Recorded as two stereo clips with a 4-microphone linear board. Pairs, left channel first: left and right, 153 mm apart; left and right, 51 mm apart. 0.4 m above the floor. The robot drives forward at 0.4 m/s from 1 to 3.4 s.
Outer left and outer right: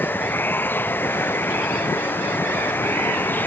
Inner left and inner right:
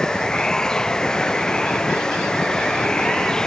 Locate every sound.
0.0 s running water: 15° left (ahead or behind)